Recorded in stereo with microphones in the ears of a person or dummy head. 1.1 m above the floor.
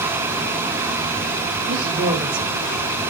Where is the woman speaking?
30° right (ahead or behind), 5.5 m.